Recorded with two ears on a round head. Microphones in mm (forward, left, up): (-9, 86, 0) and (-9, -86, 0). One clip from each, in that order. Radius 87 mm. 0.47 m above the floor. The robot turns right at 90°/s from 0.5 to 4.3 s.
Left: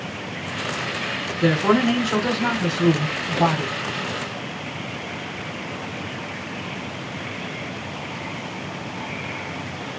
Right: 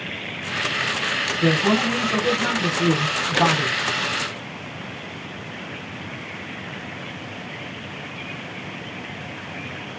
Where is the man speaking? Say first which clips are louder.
Left 3 dB; 30° left, 1.3 m; by 3.8 s 120° right, 1.3 m.